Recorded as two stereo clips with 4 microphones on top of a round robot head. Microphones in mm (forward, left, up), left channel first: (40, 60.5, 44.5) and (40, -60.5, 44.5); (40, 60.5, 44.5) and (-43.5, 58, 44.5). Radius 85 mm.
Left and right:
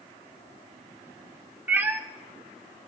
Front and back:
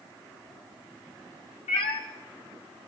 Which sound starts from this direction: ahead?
A cat meowing, at 1.7 s.